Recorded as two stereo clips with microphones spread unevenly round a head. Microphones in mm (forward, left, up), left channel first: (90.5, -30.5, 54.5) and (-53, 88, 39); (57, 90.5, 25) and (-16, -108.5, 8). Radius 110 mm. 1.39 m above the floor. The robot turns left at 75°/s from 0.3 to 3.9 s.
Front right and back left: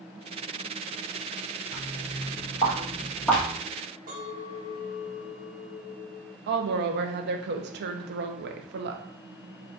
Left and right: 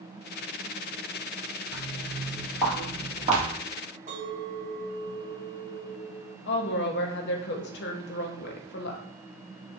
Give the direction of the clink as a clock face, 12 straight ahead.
6 o'clock.